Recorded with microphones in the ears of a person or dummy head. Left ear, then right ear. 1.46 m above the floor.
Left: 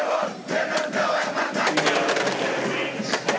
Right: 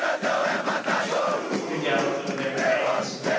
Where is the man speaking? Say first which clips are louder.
Left 3 dB; 45° right (ahead or behind), 1.9 m.